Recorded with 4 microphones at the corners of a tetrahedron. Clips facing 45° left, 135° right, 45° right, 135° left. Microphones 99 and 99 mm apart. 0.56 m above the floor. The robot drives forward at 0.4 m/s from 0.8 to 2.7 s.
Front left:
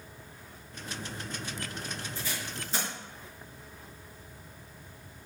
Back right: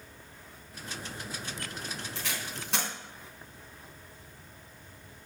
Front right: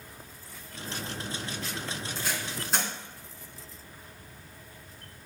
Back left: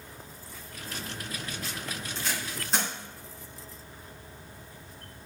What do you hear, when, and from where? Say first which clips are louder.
2.1 s tape being pulled: even, even; 130° right, 3.5 m; by 2.9 s 135° right, 3.5 m